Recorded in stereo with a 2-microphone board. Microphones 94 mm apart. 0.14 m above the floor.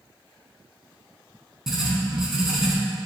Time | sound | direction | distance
1.7 | writing | 5° right (ahead or behind) | 0.8 m